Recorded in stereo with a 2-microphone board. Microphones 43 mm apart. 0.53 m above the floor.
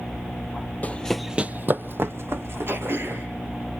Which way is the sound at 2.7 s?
55° right (ahead or behind).